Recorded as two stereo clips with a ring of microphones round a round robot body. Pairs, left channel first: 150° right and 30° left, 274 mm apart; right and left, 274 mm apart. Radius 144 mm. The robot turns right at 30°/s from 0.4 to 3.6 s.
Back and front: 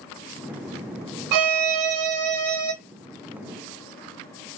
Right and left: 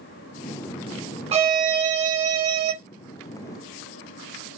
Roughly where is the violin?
Ahead.